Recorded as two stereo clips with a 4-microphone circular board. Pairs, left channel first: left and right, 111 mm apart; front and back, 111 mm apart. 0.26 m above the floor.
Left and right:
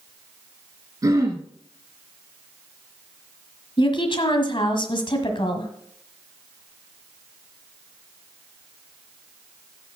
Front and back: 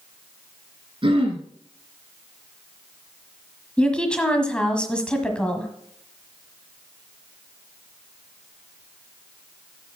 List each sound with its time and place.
1.0 s throat clearing: 145° right, 2.0 m
3.8 s a woman speaking: 80° left, 1.4 m